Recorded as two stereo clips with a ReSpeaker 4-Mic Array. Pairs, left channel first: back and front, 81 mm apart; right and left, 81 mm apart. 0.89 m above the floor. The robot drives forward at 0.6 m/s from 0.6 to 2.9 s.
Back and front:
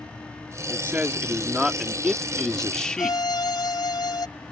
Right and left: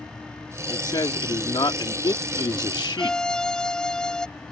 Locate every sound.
0.7 s a man speaking: 65° right; by 3.2 s 100° right
3.0 s a violin: 170° right